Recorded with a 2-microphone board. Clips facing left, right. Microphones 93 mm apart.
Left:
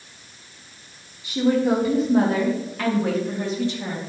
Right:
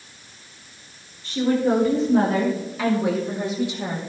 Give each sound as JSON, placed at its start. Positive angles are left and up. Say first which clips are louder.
{"t": 1.2, "sound": "a woman speaking", "louder": "left 1 dB", "side_deg": 10, "distance_m": 6.0}